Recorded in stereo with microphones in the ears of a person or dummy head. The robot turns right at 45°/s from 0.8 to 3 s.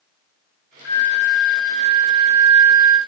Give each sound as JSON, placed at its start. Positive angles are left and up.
{"t": 0.8, "sound": "a flute", "azimuth_deg": -170, "distance_m": 1.0}